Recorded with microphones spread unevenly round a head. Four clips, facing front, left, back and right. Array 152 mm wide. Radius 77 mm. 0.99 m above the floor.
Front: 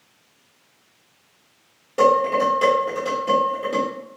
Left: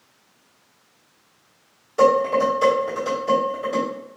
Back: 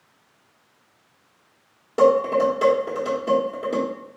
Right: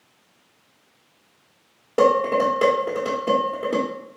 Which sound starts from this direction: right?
Dishes clattering, at 2.0 s.